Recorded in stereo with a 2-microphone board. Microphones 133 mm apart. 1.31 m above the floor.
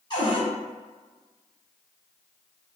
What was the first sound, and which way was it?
A cupboard door, 30° left (ahead or behind).